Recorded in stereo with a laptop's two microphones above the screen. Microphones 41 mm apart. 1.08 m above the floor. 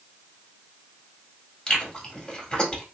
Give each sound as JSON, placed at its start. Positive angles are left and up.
{"t": 1.7, "sound": "chewing", "side_deg": 25, "distance_m": 1.7}